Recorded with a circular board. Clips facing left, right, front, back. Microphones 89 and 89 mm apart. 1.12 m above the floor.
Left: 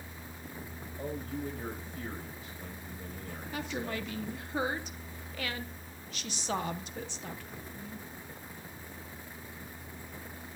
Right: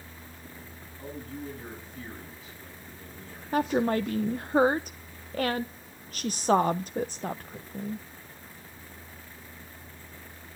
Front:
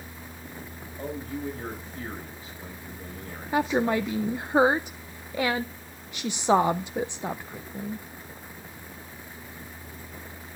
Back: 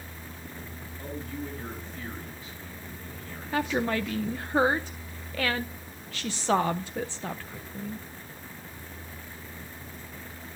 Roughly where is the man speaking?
Ahead left.